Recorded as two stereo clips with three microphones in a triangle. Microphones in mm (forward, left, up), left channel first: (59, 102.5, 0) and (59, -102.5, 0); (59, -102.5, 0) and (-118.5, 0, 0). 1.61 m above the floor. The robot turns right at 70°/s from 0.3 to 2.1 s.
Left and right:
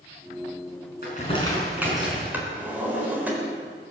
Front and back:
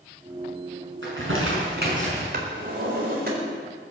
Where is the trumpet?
I don't hear a trumpet.